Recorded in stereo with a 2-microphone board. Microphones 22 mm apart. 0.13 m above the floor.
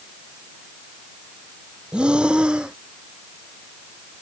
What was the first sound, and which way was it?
Breathing, 50° right (ahead or behind).